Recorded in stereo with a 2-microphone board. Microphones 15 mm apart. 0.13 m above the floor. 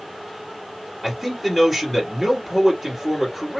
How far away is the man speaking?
About 2.5 m.